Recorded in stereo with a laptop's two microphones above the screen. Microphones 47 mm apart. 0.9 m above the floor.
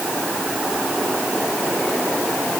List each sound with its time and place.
Only background noise.